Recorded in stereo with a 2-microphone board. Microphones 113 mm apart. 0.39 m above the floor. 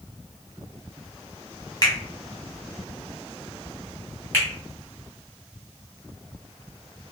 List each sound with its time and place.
1.8 s a finger snap: 35° left (ahead or behind), 1.3 m
4.3 s a finger snap: 15° left (ahead or behind), 1.7 m